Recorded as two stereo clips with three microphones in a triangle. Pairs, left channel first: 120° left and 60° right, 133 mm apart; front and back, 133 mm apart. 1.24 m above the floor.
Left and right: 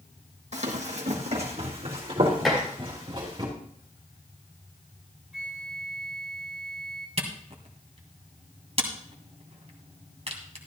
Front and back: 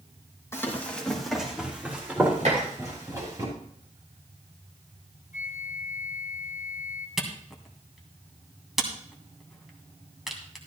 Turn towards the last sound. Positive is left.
turn(degrees=-90)